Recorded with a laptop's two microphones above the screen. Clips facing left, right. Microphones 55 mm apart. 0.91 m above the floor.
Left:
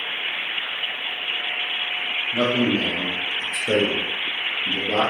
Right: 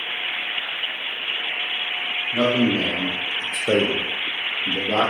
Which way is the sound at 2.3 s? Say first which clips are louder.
Right 1 dB; 15° right (ahead or behind).